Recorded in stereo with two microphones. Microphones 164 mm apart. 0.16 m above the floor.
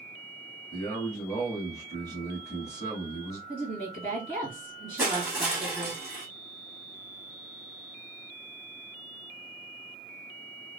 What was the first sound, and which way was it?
A man speaking, 15° left (ahead or behind).